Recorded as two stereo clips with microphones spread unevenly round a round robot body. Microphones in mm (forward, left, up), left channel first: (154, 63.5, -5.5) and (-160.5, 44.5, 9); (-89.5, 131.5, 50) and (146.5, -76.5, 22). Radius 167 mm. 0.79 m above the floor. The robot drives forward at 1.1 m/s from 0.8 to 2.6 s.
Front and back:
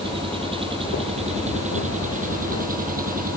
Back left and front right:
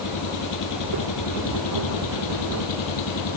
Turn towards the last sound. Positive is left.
turn(degrees=120)